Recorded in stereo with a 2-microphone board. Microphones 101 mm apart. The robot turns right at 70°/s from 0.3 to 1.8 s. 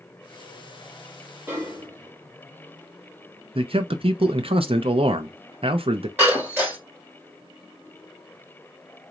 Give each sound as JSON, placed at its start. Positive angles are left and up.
{"t": 1.5, "sound": "a snare drum", "side_deg": -20, "distance_m": 2.0}
{"t": 3.5, "sound": "a man speaking", "side_deg": -65, "distance_m": 0.5}
{"t": 6.2, "sound": "breaking glass", "side_deg": -20, "distance_m": 3.0}